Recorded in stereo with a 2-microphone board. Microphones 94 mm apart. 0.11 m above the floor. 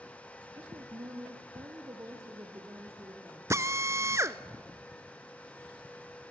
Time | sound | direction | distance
0.6 | a woman speaking | 50° right (ahead or behind) | 1.9 m
3.5 | a drill | 35° right (ahead or behind) | 0.6 m